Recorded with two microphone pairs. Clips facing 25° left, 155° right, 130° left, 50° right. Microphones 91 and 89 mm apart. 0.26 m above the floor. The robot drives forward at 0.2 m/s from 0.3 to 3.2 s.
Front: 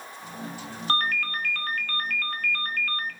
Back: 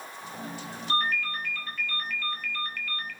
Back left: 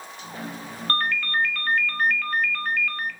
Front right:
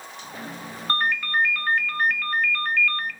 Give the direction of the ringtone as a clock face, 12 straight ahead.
11 o'clock.